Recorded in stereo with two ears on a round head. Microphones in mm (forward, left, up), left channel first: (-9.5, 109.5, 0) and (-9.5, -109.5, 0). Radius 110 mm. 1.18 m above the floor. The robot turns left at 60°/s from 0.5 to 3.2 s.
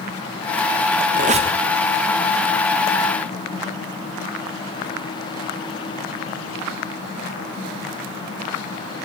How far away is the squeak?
About 0.8 m.